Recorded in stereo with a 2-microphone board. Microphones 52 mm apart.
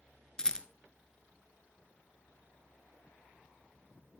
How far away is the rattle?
About 1.1 m.